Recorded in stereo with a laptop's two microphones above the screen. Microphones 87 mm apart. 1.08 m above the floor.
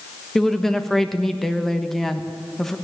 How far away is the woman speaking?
About 1.3 m.